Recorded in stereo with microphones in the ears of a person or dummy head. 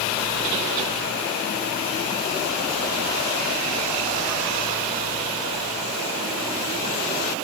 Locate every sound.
Only background noise.